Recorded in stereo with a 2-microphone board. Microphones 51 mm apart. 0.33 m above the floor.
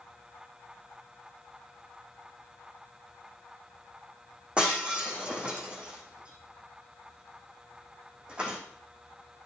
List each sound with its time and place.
4.6 s breaking glass: 20° right (ahead or behind), 2 m